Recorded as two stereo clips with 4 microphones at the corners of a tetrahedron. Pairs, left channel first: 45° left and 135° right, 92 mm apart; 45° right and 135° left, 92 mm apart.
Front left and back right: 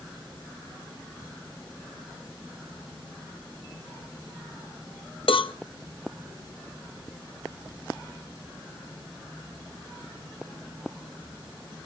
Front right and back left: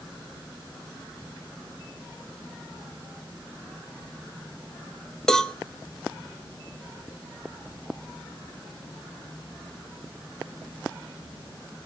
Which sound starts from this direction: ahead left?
A cowbell, at 5.3 s.